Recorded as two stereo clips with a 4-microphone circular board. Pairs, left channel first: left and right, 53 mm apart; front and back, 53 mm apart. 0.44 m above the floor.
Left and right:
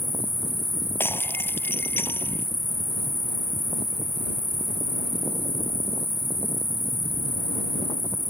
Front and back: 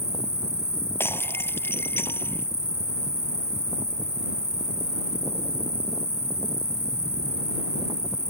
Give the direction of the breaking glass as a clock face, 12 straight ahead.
10 o'clock.